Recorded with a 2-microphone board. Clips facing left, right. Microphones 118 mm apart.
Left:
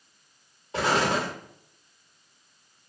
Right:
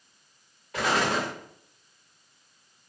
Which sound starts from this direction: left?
An explosion, at 0.7 s.